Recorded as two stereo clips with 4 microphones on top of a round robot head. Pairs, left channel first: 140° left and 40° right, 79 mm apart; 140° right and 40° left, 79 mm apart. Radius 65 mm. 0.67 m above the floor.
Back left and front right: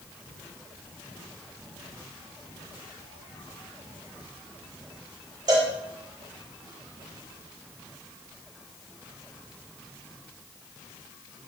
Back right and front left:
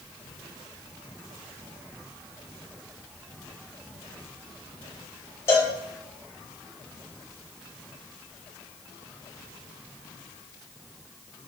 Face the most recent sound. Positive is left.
turn(degrees=-85)